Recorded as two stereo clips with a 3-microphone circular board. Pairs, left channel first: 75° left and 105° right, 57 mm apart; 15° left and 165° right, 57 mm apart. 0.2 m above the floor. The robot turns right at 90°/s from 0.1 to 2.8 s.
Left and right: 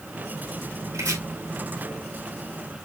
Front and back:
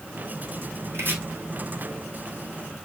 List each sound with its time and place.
0.9 s chopping: 125° right, 3 m; by 1.2 s 105° right, 3 m